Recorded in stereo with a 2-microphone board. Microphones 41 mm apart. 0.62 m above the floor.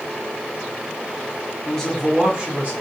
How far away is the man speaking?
About 0.8 m.